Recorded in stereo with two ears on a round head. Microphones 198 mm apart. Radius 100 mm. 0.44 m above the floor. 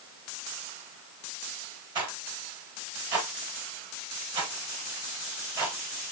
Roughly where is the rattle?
Right.